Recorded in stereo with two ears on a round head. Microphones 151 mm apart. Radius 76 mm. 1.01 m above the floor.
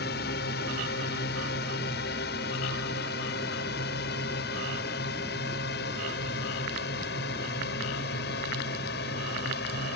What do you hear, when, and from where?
0.0 s a drone: 65° left (ahead or behind); by 10.0 s 70° left (ahead or behind)